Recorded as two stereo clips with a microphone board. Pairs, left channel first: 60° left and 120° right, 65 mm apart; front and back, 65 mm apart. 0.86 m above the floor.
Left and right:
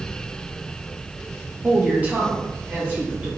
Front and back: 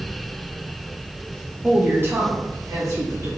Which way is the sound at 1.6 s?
140° right.